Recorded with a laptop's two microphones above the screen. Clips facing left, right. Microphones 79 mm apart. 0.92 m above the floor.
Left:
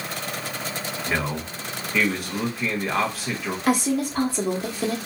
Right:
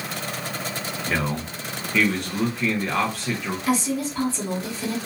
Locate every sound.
1.1 s a man speaking: 5° left (ahead or behind), 0.9 m
3.7 s a woman speaking: 50° left (ahead or behind), 0.9 m